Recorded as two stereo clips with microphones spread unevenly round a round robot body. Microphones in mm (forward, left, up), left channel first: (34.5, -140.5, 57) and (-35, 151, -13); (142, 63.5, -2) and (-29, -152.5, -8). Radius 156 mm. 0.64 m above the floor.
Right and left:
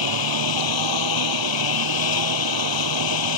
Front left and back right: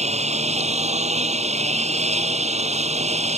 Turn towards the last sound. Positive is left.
turn(degrees=-60)